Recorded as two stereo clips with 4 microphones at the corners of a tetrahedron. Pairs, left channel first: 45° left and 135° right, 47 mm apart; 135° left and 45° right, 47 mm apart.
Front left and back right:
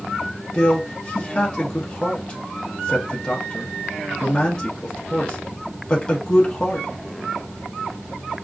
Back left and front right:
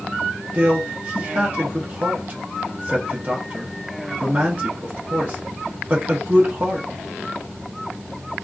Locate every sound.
0.5 s a man speaking: 15° right, 0.9 m